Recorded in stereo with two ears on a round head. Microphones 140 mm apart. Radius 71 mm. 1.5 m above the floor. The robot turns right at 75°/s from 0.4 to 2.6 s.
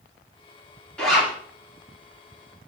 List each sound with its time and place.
1.0 s a zipper: 5° left (ahead or behind), 2 m; by 1.3 s 20° right (ahead or behind), 2 m